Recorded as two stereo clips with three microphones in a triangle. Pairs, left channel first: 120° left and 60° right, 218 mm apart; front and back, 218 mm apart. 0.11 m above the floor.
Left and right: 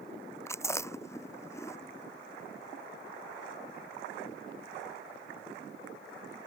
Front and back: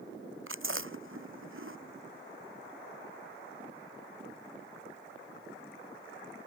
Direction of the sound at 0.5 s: 160° right.